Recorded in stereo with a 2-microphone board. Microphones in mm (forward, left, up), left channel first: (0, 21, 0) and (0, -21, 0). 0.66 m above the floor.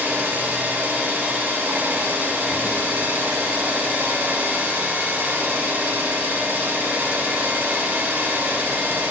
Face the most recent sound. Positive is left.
turn(degrees=-70)  # may be behind; listen again after turning